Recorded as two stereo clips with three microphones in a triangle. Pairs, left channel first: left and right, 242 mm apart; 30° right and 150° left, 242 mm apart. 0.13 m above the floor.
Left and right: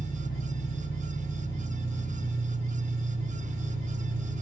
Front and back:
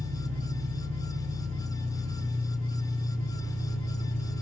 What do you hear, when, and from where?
0.0 s an engine running: 160° left, 1.0 m